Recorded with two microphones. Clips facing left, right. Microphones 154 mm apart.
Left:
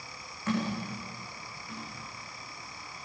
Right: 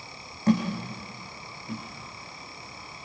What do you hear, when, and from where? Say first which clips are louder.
0.5 s a thud: right 7 dB; 35° right (ahead or behind), 9 m